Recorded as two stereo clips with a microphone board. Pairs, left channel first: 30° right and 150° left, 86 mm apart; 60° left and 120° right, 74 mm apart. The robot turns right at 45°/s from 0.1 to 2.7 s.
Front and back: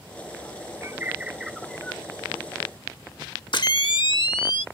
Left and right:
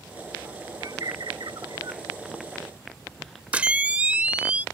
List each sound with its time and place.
0.8 s a bird: 155° right; by 2.0 s 100° right
3.5 s a camera shutter: 50° right